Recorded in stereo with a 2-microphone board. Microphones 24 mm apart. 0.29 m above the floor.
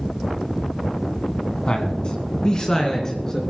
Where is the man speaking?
40° left (ahead or behind), 2 m; by 3.4 s 20° left (ahead or behind), 3 m.